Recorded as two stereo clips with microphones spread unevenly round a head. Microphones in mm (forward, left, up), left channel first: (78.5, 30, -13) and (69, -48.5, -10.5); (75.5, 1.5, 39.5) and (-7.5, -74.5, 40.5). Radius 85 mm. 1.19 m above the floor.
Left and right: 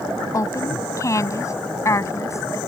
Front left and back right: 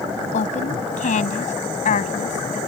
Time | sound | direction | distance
0.3 | a woman speaking | 35° left | ?